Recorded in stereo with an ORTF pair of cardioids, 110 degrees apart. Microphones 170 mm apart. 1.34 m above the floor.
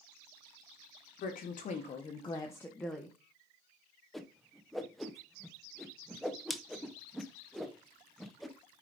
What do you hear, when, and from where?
1.2 s a woman speaking: 60° left, 1.2 m; by 3.1 s 5° right, 1.1 m
4.1 s a whoosh: straight ahead, 0.8 m